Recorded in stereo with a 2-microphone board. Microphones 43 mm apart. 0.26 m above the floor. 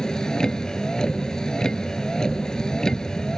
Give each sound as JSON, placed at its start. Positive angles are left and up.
{"t": 0.0, "sound": "a vehicle", "side_deg": 15}